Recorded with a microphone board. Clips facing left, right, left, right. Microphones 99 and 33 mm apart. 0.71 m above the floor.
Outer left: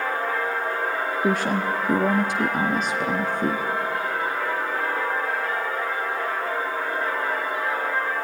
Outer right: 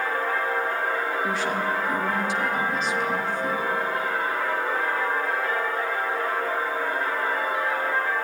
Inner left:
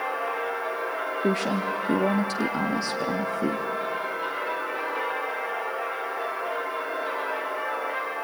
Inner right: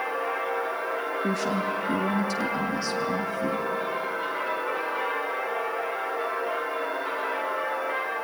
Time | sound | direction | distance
1.2 | a woman speaking | 55° left (ahead or behind) | 0.7 m